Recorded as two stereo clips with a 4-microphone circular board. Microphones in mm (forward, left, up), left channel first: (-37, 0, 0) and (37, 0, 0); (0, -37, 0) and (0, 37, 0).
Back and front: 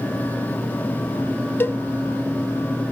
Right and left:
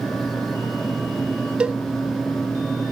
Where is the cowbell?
155° left, 0.6 m.